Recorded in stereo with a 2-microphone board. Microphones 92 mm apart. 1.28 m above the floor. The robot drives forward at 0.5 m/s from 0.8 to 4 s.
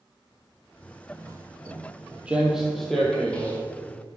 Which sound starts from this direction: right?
Footsteps, at 1.1 s.